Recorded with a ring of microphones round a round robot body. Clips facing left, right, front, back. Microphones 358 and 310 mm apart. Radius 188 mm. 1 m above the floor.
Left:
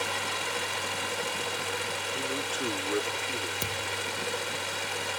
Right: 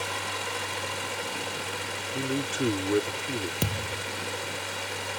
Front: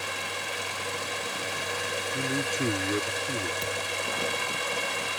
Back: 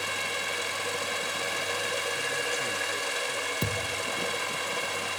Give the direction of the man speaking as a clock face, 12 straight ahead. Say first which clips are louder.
Right 7 dB, front 5 dB; 1 o'clock.